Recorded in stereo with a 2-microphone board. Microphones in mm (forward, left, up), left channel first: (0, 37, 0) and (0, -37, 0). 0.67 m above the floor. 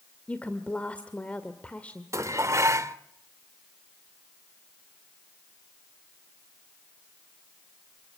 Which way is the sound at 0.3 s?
15° left (ahead or behind).